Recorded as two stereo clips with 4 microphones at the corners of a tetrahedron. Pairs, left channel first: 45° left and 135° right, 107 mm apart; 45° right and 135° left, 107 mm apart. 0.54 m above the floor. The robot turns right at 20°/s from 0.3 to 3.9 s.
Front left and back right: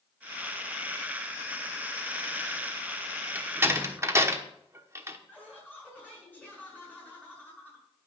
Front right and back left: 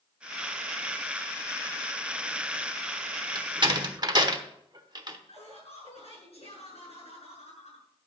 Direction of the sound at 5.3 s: 30° right.